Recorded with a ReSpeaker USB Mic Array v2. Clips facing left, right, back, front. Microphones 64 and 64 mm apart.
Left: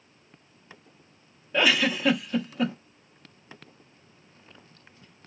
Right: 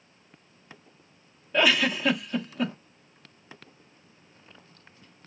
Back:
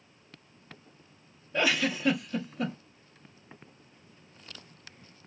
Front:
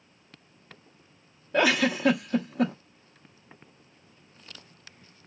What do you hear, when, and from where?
1.5 s a giggle: straight ahead, 0.6 m